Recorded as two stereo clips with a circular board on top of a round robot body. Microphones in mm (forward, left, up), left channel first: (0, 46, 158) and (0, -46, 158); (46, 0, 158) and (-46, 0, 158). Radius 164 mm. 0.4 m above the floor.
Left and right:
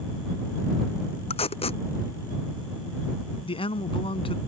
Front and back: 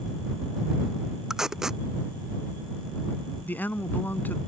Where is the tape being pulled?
95° left.